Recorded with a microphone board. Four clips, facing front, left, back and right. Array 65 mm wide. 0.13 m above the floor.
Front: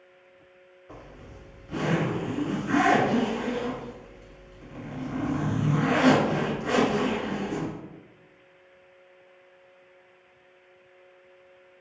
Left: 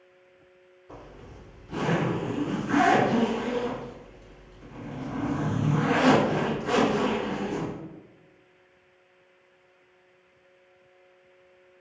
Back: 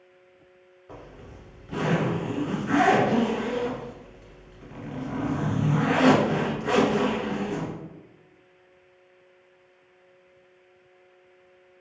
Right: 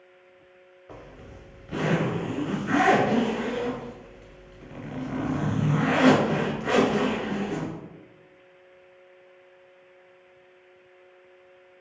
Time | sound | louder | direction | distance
0.9 | a zipper | right 1 dB, back 2 dB | 115° right | 1.4 m